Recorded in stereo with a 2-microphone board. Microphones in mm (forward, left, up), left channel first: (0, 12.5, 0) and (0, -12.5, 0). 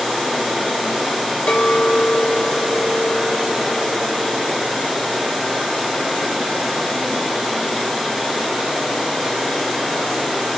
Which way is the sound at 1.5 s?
65° left (ahead or behind).